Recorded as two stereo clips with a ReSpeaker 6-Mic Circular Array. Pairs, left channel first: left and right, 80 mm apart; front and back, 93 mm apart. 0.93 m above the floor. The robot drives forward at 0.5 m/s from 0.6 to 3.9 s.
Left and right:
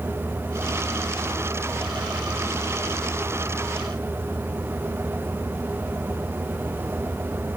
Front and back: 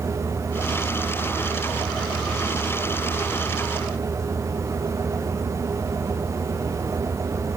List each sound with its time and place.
Only background noise.